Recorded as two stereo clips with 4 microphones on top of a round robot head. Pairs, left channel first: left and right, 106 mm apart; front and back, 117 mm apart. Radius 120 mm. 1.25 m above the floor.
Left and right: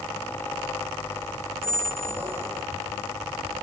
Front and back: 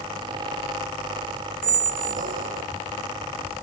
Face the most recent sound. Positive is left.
turn(degrees=-165)